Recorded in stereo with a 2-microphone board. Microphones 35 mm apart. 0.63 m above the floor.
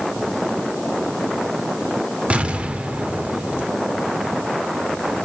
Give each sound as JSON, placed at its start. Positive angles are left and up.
{"t": 2.3, "sound": "an explosion", "side_deg": -40, "distance_m": 1.0}